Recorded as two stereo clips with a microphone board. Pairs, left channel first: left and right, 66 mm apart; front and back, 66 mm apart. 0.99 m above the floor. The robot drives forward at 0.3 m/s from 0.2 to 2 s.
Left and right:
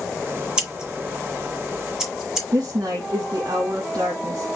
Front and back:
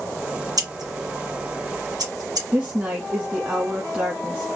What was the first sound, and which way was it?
Scissors, 170° right.